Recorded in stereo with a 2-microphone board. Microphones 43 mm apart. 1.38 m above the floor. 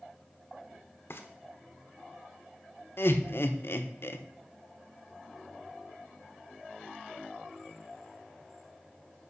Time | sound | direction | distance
1.1 | frying | 65° left (ahead or behind) | 1.1 m
3.0 | laughter | 65° left (ahead or behind) | 0.9 m